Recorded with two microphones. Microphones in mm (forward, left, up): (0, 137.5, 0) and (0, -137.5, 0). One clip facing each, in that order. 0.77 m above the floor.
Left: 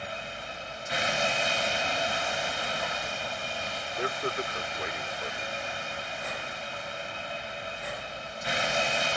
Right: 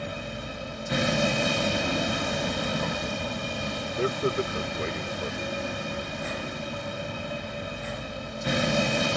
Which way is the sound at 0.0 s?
55° right (ahead or behind).